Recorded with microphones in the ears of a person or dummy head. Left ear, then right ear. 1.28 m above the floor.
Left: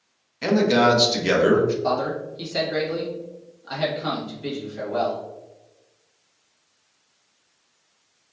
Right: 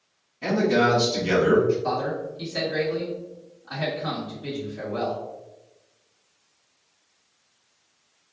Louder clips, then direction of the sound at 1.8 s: Left 3 dB; 70° left (ahead or behind).